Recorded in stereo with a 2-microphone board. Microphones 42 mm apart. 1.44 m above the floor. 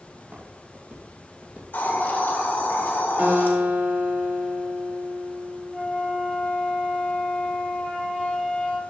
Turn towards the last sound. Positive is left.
turn(degrees=-5)  # may be behind; listen again after turning